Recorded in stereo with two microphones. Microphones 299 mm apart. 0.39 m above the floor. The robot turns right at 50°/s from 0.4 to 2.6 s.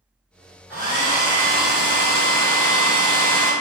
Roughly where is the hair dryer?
Behind.